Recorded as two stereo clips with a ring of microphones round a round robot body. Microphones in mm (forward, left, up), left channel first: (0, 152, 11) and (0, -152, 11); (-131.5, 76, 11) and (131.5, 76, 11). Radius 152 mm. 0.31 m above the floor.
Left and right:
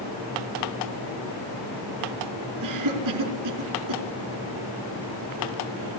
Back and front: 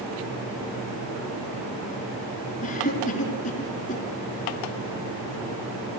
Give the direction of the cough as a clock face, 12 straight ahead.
4 o'clock.